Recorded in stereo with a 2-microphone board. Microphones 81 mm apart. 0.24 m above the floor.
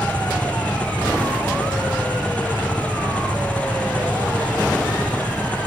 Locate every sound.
0.0 s an engine running: 15° left (ahead or behind)